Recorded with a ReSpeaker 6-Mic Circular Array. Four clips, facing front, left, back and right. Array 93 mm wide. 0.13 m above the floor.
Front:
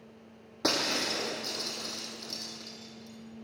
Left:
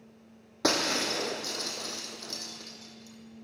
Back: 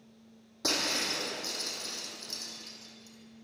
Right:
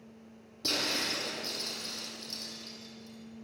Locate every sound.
0.6 s breaking glass: 65° left, 3.5 m